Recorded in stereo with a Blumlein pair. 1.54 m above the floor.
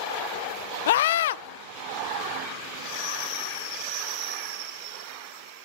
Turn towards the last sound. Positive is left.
turn(degrees=55)